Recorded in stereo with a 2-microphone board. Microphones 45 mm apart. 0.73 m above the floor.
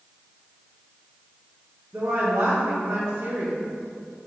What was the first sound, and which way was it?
A woman speaking, 75° right (ahead or behind).